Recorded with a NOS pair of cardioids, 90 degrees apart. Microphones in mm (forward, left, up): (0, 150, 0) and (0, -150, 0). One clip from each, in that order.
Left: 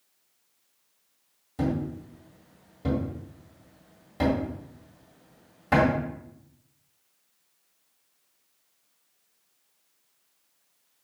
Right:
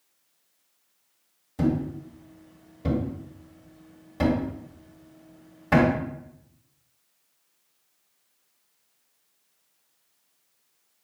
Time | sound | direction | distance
1.6 | a thud | straight ahead | 1.6 m